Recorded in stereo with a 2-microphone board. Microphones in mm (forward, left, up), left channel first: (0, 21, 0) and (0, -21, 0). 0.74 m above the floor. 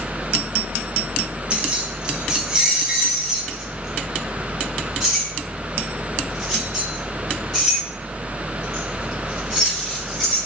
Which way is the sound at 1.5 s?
25° right (ahead or behind).